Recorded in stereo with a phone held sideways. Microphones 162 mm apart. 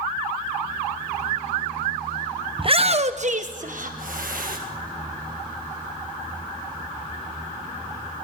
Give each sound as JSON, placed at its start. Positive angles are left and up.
{"t": 2.6, "sound": "a shout", "side_deg": -35, "distance_m": 0.8}